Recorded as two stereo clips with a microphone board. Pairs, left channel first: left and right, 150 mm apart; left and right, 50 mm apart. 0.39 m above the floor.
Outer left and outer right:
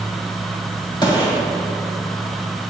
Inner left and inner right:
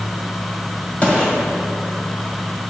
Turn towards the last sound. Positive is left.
turn(degrees=30)  # may be behind; listen again after turning